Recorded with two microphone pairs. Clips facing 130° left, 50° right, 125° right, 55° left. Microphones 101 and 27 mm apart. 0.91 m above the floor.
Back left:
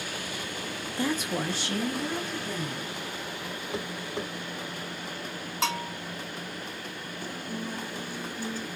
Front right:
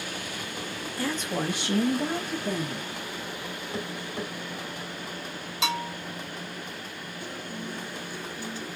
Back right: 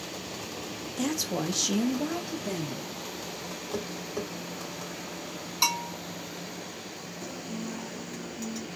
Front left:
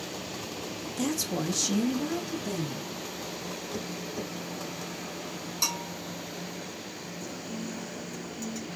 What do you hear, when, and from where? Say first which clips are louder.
1.0 s a woman speaking: back left 1 dB, back right 1 dB; 155° left, 0.8 m; by 2.9 s 65° right, 1.6 m
3.7 s tapping: even, back right 4 dB; 165° right, 3 m
5.6 s a bell: front right 1 dB, back right 4 dB; 175° left, 3 m
7.2 s a guitar: back left 2 dB, back right 1 dB; 175° left, 2 m